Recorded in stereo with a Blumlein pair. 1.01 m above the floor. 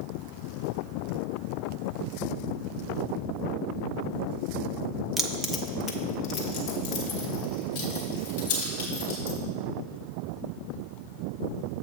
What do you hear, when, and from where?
5.2 s keys jangling: 10° right, 0.7 m; by 9.4 s 55° left, 4 m